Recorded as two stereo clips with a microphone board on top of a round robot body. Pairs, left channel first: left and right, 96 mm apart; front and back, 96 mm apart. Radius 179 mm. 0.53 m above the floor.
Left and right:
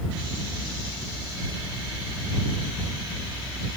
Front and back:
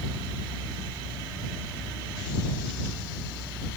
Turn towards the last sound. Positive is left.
No sound to turn to.